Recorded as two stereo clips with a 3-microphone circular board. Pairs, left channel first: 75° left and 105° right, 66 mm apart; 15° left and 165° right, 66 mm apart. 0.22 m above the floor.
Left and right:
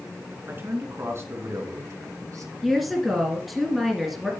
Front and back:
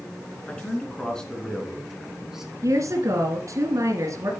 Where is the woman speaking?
165° left, 2.5 m.